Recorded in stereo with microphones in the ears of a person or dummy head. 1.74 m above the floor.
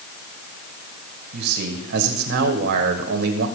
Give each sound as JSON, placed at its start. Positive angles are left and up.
{"t": 1.3, "sound": "a man speaking", "side_deg": -50, "distance_m": 1.5}